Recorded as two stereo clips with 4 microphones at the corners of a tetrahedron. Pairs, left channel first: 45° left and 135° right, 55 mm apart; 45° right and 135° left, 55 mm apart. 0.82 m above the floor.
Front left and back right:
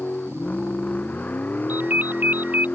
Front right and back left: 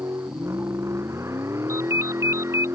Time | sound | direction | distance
0.0 | a vehicle | 105° left | ?
1.7 | a ringtone | 170° left | ?